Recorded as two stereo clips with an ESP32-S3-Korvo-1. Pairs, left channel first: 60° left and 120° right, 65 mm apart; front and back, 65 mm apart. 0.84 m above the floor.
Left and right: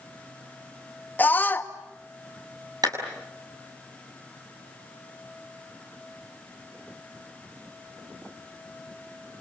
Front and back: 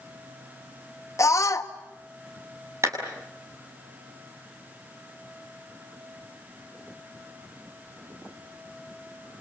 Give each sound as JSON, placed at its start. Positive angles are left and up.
{"t": 1.2, "sound": "a scream", "azimuth_deg": 5, "distance_m": 1.5}
{"t": 2.8, "sound": "a clap", "azimuth_deg": -135, "distance_m": 6.5}